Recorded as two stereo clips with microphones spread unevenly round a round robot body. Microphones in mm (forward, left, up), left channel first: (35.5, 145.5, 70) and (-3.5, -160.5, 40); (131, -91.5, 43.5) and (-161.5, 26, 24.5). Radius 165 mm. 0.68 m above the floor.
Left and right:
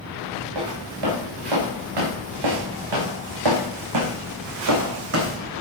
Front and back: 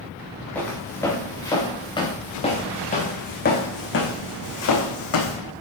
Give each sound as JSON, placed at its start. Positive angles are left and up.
{"t": 0.6, "sound": "footsteps", "azimuth_deg": -105, "distance_m": 5.5}